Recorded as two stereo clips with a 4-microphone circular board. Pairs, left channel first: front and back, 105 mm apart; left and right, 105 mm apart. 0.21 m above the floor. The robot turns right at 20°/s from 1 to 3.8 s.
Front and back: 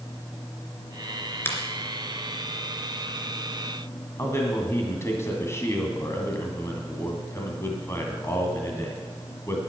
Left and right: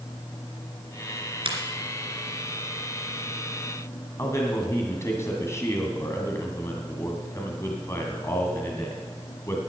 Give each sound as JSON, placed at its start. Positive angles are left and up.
{"t": 1.4, "sound": "a finger snap", "azimuth_deg": -65, "distance_m": 2.5}
{"t": 4.2, "sound": "a man speaking", "azimuth_deg": 45, "distance_m": 2.0}